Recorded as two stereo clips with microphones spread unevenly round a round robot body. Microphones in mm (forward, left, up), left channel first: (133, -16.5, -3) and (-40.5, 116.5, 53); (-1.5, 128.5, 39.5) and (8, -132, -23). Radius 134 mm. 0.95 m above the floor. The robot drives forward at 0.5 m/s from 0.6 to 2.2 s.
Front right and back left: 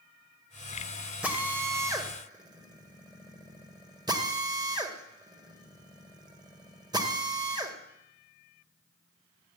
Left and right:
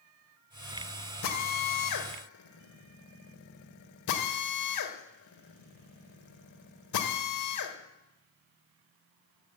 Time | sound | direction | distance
1.2 | a drill | 60° left | 2 m